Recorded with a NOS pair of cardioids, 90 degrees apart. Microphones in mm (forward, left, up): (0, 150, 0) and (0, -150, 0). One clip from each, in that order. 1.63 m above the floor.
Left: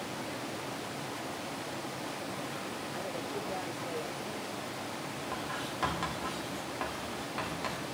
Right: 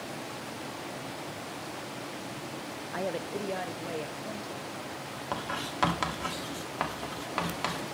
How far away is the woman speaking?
About 0.6 m.